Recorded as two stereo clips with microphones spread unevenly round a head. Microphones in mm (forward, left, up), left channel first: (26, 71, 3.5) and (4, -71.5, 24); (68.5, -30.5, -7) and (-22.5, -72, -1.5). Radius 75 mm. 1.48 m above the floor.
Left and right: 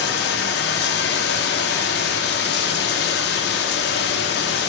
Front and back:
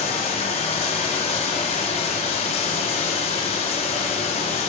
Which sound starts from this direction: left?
Running water, at 0.0 s.